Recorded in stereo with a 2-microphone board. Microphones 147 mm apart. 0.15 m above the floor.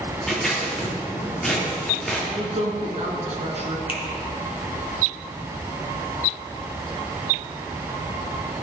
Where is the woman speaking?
50° right (ahead or behind), 1.7 m.